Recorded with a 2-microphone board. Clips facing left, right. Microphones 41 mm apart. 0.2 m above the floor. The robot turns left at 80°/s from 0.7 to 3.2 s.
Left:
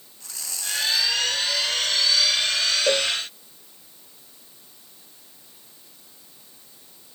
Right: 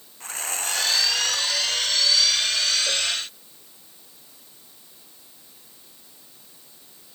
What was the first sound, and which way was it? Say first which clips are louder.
Sawing: right 6 dB; 45° right.